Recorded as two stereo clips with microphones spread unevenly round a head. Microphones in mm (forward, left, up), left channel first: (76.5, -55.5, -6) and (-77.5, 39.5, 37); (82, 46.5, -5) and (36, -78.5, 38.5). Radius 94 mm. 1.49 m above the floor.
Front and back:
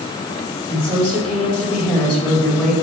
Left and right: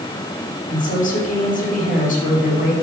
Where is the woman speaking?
55° left, 5 m.